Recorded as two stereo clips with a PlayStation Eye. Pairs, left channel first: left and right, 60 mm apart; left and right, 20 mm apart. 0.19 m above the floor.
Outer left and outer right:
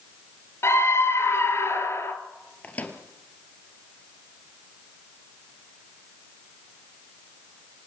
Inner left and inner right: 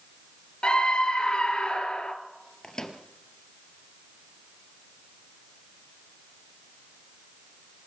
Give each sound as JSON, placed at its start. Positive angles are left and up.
{"t": 0.6, "sound": "a scream", "side_deg": 45, "distance_m": 3.0}
{"t": 2.6, "sound": "a microwave", "side_deg": 25, "distance_m": 2.5}